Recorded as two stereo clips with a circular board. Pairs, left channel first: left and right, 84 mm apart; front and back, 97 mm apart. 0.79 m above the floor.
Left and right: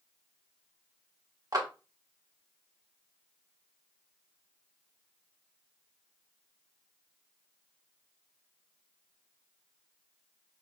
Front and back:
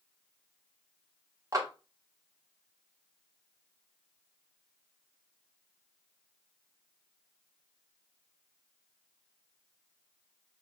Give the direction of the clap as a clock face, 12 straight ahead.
4 o'clock.